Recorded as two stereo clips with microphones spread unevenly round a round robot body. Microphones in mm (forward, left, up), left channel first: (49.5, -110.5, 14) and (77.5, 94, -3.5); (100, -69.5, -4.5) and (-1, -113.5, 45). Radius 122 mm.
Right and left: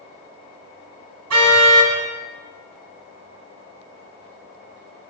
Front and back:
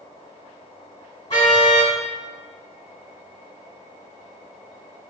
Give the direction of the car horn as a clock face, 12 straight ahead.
9 o'clock.